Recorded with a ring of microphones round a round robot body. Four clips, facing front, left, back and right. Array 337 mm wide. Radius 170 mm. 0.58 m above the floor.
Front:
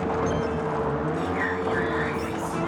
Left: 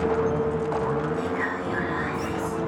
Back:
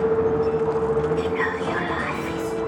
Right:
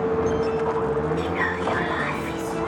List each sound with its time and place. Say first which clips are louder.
1.2 s whispering: right 2 dB, back 3 dB; 125° right, 5.5 m